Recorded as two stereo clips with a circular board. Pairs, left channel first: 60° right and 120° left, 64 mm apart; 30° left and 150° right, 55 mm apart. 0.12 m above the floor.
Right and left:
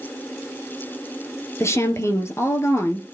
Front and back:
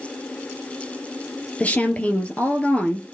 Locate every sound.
1.6 s a woman speaking: 30° right, 1.9 m